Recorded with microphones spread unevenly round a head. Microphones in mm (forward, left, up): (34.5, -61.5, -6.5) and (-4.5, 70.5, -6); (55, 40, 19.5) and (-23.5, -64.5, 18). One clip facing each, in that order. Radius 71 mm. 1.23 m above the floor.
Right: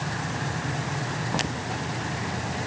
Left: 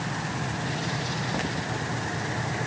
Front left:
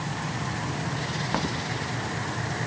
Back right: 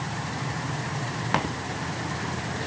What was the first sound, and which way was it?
Only background noise.